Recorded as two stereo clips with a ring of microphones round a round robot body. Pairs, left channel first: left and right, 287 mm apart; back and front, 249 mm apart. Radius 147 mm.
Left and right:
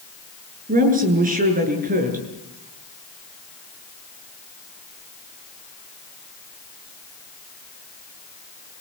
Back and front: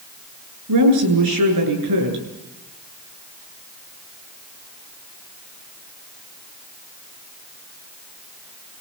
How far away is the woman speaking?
About 8 m.